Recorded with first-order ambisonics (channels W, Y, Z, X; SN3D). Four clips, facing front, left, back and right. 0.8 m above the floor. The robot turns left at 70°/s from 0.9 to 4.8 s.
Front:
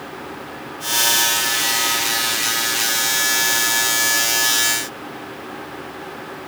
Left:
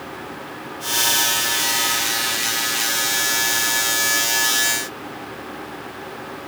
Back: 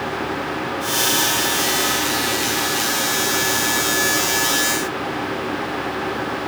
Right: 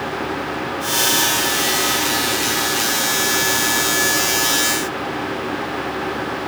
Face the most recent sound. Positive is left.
No sound to turn to.